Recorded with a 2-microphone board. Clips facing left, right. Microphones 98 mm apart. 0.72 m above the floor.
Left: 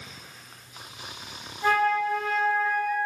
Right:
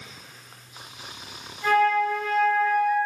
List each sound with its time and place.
1.6 s a flute: 30° left (ahead or behind), 1.8 m